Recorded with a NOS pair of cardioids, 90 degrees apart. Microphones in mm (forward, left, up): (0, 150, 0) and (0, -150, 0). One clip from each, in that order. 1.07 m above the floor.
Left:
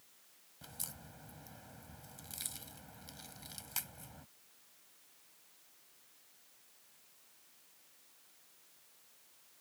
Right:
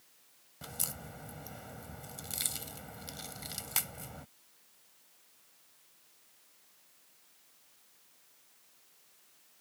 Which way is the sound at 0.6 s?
50° right.